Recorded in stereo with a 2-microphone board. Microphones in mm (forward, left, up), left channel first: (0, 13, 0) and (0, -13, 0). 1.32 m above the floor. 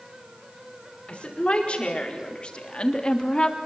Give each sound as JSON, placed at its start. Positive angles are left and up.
{"t": 1.1, "sound": "a woman speaking", "side_deg": 45, "distance_m": 5.5}